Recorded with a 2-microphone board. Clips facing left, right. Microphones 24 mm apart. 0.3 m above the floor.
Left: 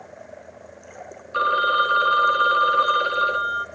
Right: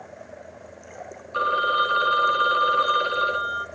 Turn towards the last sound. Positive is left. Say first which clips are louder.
# left 2 dB
turn(degrees=20)  # may be behind; listen again after turning